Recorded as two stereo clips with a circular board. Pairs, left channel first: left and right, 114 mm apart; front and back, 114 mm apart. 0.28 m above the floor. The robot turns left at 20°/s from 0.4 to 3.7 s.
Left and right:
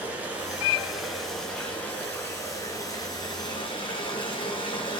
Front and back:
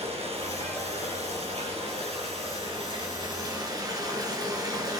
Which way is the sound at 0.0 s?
165° right.